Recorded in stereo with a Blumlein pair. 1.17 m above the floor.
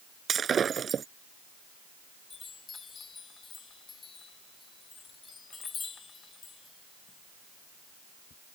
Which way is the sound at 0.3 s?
20° right.